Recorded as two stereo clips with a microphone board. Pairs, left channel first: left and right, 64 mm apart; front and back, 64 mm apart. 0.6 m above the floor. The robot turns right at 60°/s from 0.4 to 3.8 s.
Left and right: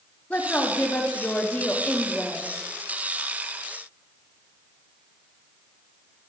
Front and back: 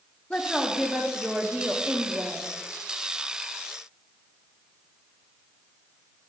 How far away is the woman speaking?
About 1.0 m.